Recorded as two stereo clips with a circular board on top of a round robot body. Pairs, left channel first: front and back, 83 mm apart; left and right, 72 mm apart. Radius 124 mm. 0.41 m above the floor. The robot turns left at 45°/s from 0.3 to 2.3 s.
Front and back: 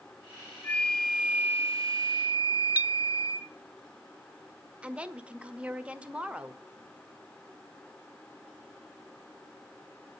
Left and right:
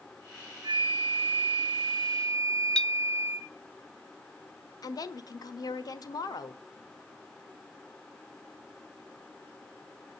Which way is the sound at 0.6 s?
70° right.